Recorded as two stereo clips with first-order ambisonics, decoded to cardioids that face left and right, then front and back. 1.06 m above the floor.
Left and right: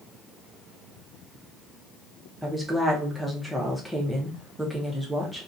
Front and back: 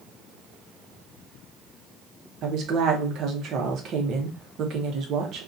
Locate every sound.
2.4 s a woman speaking: straight behind, 0.6 m